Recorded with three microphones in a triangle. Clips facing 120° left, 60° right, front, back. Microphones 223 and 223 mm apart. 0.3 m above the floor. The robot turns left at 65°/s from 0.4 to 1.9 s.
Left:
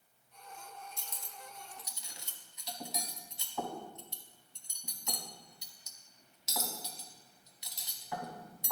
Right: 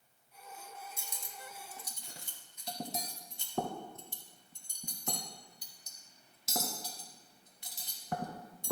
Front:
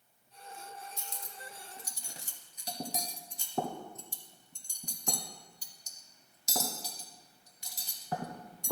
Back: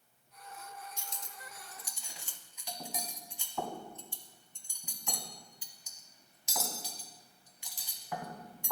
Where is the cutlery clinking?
25° left, 0.9 m; by 8.7 s 35° right, 0.9 m.